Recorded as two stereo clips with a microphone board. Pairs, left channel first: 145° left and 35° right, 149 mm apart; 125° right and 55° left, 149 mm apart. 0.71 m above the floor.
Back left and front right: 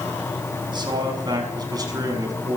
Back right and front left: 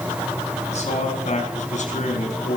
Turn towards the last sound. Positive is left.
turn(degrees=-100)